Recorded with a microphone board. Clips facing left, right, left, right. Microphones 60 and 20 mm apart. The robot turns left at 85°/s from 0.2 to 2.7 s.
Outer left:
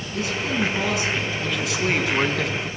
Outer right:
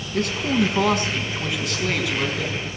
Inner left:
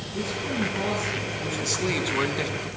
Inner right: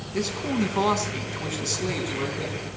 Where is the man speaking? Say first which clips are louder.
Outer right 3 dB, inner right 2 dB; 60° right, 4.5 m; by 2.7 s 90° left, 4.5 m.